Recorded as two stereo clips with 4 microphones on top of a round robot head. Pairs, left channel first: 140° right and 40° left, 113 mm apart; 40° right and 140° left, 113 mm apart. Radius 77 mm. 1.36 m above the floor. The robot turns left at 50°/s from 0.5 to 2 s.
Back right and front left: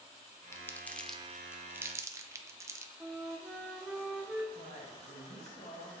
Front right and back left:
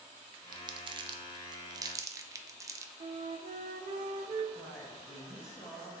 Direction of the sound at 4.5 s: 105° right.